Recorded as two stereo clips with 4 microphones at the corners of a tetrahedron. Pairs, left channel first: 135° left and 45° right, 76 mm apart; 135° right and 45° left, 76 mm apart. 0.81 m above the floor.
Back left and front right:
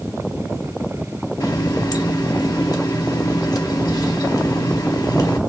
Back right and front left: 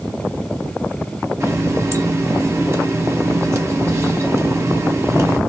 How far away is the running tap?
About 0.8 m.